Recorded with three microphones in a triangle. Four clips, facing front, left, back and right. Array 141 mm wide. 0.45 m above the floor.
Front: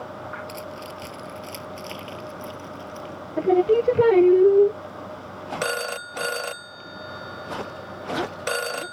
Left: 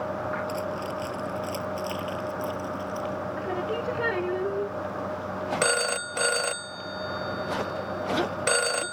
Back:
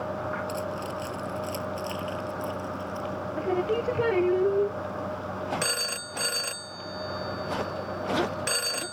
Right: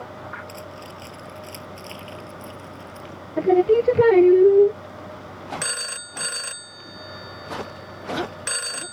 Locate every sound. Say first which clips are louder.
0.5 s keys jangling: left 7 dB, back 4 dB; straight ahead; by 3.1 s 5° left
3.4 s singing: right 17 dB, front 9 dB; 55° right
5.6 s a phone ringing: left 8 dB, front 6 dB; 55° left